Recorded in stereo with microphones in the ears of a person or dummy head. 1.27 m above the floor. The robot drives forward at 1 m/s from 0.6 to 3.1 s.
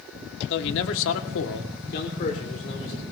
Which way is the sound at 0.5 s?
60° left (ahead or behind).